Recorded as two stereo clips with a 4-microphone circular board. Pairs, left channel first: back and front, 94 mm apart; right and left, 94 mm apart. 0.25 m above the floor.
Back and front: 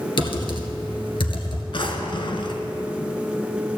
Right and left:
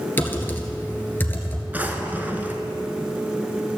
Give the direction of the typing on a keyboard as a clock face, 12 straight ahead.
5 o'clock.